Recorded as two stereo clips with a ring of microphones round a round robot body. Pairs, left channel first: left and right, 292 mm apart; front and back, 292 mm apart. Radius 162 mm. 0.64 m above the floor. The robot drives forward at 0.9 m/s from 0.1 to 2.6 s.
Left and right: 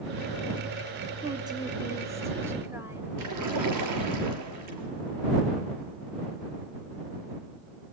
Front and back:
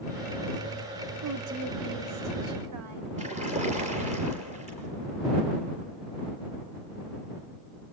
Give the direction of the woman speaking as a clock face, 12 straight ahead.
5 o'clock.